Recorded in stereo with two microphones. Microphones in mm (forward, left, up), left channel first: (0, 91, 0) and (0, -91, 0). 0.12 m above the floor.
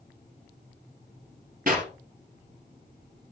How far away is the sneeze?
No sneeze in this recording.